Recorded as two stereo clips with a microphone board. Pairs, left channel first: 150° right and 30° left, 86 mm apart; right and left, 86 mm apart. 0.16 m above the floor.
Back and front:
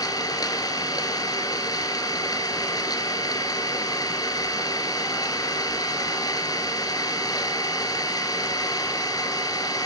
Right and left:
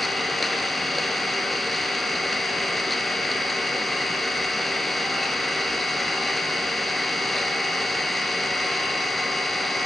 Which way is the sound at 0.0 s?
Straight behind.